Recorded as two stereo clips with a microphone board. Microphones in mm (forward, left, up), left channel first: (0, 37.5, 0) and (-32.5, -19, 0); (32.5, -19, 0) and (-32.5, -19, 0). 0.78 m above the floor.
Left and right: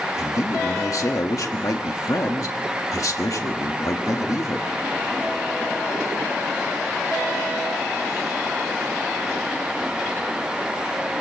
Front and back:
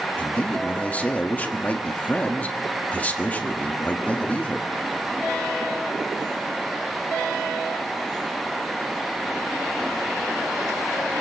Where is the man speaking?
60° left, 1.4 m.